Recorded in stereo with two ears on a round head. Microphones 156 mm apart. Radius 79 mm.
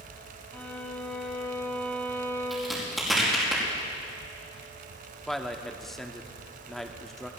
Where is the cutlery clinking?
I don't hear cutlery clinking.